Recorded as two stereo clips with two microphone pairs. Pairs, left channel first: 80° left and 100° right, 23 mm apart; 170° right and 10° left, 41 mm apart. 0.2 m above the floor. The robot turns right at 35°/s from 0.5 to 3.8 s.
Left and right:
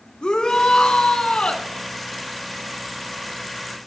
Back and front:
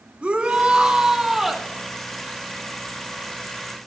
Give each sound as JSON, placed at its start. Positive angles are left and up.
{"t": 0.2, "sound": "a shout", "azimuth_deg": 60, "distance_m": 2.0}